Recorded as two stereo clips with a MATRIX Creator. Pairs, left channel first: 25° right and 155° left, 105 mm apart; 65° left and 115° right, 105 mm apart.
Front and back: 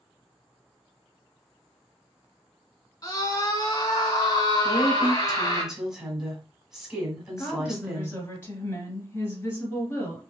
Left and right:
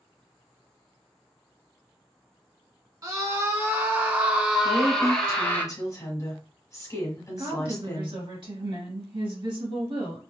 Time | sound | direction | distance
3.0 | a scream | 65° right | 1.7 m
4.6 | a woman speaking | 75° left | 1.5 m
7.4 | a woman speaking | 85° right | 2.5 m